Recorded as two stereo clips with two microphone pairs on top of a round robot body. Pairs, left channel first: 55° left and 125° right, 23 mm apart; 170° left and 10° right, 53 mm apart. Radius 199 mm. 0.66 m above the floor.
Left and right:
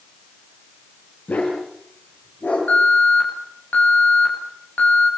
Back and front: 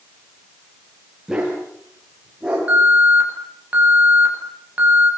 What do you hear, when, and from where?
1.3 s a dog barking: 65° left, 8.5 m
2.7 s an alarm: 55° left, 9 m